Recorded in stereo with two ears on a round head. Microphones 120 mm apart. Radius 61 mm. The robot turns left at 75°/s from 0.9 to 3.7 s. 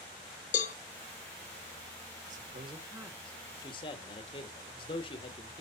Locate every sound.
0.5 s a cowbell: 60° left (ahead or behind), 0.8 m
2.3 s a man speaking: 115° right, 1.4 m; by 5.6 s 140° left, 1.4 m